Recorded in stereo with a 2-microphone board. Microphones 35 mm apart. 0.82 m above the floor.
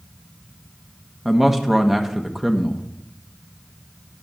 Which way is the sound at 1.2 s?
10° right (ahead or behind).